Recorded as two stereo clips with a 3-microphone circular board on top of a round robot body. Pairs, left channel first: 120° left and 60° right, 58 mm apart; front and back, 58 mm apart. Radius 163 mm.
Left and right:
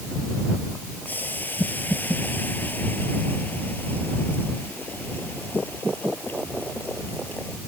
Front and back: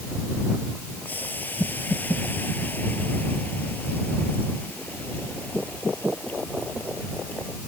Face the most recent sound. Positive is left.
turn(degrees=60)